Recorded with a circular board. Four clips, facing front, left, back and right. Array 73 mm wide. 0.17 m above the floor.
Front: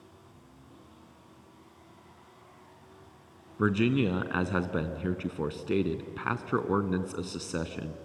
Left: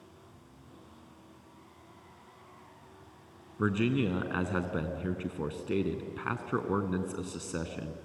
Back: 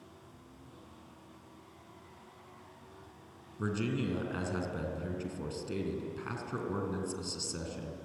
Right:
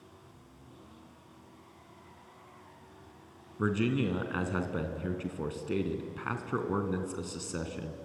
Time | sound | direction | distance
3.6 | a man speaking | 5° left | 1.4 m